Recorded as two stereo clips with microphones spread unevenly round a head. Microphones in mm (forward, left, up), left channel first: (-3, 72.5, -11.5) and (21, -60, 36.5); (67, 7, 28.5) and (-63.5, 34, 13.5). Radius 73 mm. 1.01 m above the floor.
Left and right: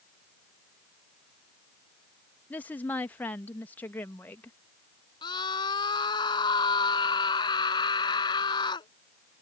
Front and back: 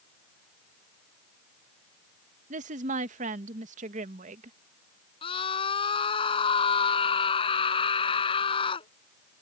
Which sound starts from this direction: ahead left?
A scream, at 5.2 s.